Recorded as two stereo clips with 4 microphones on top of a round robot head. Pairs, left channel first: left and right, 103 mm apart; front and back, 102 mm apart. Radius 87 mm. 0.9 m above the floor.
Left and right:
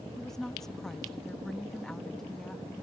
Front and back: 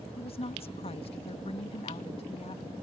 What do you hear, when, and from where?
0.2 s a woman speaking: 5° left